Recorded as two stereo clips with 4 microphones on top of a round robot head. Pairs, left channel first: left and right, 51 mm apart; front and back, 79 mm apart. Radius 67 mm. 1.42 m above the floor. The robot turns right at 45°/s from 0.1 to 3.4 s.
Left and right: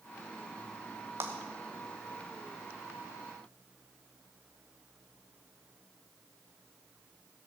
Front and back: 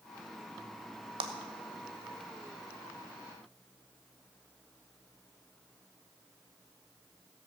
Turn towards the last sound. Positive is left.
turn(degrees=-50)